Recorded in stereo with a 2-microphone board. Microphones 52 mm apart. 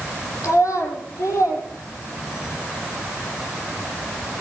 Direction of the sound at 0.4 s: 80° left.